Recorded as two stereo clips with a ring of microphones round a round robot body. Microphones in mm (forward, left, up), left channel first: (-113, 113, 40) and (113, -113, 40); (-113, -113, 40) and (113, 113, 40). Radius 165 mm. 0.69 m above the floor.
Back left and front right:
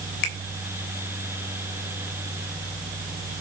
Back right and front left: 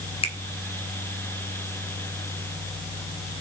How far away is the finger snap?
About 3 m.